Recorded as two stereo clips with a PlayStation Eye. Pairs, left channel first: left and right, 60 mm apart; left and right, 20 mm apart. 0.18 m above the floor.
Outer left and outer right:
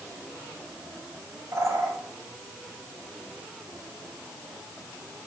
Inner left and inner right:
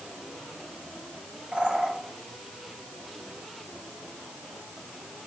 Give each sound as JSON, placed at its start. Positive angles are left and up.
{"t": 1.5, "sound": "a bird", "side_deg": -60, "distance_m": 3.5}